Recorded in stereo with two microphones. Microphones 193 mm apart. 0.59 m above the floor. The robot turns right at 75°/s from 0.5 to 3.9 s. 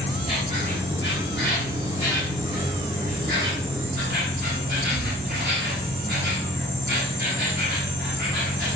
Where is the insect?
35° left, 3.5 m; by 8.8 s 70° right, 3.5 m.